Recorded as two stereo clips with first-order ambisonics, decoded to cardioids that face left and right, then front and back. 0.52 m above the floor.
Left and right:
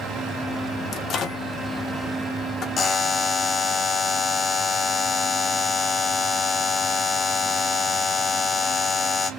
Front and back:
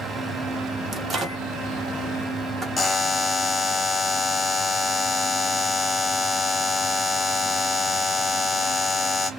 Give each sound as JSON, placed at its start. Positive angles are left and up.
{"t": 0.9, "sound": "a microwave", "azimuth_deg": 125, "distance_m": 1.0}
{"t": 2.8, "sound": "a buzzer", "azimuth_deg": 70, "distance_m": 0.6}